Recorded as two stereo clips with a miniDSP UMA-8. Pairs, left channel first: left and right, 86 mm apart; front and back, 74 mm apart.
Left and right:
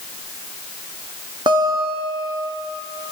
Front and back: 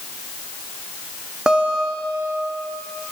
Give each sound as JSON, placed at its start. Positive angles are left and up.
{"t": 1.5, "sound": "a guitar", "azimuth_deg": -100, "distance_m": 1.6}